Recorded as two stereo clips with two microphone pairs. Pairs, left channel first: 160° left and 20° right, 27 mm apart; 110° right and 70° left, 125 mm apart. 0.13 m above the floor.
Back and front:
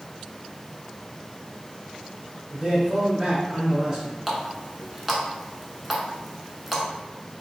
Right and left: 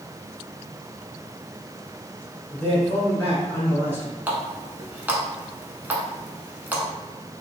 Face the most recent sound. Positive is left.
turn(degrees=35)